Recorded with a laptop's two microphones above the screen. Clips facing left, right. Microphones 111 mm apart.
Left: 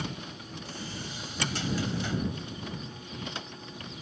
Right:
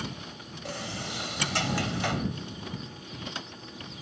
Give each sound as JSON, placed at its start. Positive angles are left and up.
{"t": 0.7, "sound": "a sliding door", "side_deg": -80}